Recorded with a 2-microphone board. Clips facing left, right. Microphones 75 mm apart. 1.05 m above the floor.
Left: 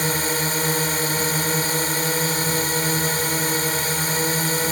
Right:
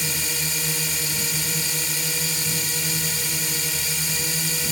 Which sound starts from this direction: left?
A drone, at 0.0 s.